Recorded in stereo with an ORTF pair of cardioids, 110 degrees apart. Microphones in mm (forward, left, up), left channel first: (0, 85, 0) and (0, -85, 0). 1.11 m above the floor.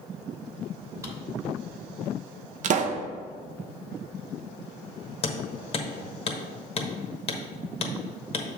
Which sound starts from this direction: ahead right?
A pop, at 2.6 s.